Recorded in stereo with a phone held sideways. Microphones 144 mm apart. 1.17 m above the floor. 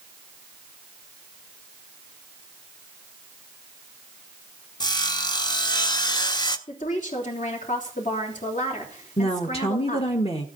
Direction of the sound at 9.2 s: 45° left (ahead or behind).